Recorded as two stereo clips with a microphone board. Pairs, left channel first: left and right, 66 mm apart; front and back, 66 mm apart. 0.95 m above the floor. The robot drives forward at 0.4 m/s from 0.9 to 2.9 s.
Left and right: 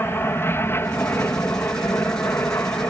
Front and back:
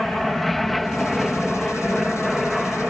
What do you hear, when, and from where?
0.0 s an aircraft: 85° left; by 2.9 s 90° left